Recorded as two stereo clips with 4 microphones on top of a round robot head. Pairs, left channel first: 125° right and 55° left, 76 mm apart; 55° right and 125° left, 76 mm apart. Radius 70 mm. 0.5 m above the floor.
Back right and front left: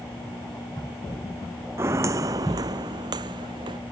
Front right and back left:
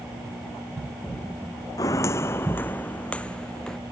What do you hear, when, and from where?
1.8 s footsteps: 5° right; by 3.8 s 30° left